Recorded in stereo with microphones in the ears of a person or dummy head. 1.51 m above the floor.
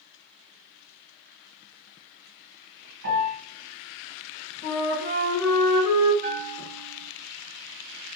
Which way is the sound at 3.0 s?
40° right (ahead or behind).